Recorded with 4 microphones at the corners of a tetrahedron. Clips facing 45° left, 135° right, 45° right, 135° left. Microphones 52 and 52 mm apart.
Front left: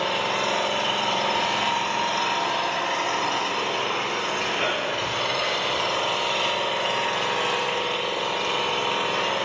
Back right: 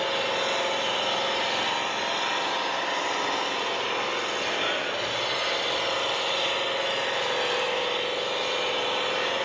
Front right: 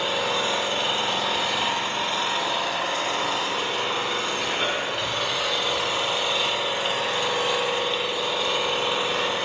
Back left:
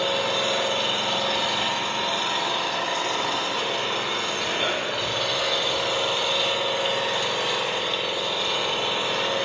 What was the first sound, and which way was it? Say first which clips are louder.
An engine running: front left 2 dB, even; 30° left.